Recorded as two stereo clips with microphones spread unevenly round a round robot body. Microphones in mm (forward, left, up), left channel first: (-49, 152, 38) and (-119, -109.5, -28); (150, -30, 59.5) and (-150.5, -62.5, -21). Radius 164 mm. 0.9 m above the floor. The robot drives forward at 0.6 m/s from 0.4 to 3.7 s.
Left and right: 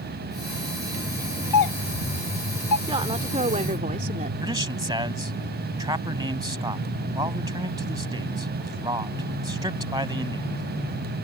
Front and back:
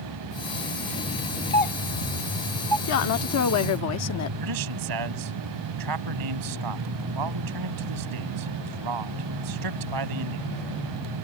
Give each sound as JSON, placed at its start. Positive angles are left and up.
{"t": 1.5, "sound": "a doorbell", "azimuth_deg": 75}
{"t": 2.9, "sound": "a woman speaking", "azimuth_deg": -30}
{"t": 4.4, "sound": "a man speaking", "azimuth_deg": 180}